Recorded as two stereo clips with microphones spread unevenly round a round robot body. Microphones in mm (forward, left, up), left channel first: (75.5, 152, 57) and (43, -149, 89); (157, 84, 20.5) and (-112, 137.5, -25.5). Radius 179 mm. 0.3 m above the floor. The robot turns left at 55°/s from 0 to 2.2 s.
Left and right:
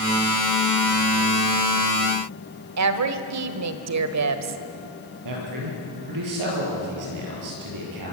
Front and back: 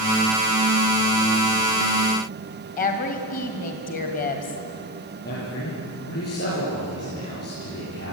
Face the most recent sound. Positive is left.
turn(degrees=-75)